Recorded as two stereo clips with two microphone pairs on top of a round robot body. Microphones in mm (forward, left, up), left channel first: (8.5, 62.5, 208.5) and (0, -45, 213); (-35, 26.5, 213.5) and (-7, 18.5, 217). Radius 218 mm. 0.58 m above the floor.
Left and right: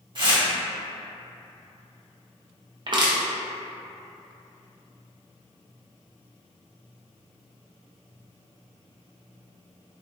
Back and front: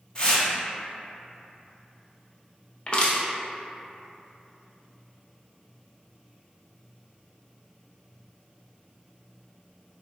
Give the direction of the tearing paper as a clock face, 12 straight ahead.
5 o'clock.